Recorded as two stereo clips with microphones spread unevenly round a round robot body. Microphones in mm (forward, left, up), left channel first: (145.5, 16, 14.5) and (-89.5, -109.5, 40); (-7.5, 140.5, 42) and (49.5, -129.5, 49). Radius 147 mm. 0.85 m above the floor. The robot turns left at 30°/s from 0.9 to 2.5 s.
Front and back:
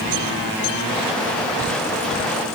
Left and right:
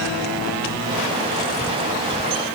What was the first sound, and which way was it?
Only background noise.